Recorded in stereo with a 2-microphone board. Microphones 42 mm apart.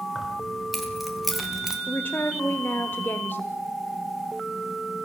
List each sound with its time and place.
0.1 s keys jangling: 5° left (ahead or behind), 4 m; by 1.8 s 10° right (ahead or behind), 2.5 m
1.9 s a woman speaking: 55° left (ahead or behind), 1.5 m